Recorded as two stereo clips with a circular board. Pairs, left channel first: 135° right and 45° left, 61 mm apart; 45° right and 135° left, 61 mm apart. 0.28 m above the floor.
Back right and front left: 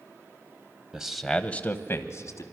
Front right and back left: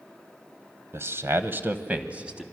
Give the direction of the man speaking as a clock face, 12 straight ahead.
8 o'clock.